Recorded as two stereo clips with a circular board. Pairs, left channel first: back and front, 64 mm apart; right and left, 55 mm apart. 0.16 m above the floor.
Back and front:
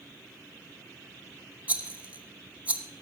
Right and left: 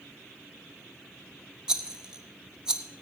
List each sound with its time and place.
1.7 s a rattle: 35° left, 1.1 m